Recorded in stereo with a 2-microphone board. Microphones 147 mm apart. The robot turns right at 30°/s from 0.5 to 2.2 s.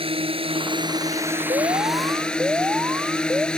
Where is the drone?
45° right; by 3.6 s 5° left.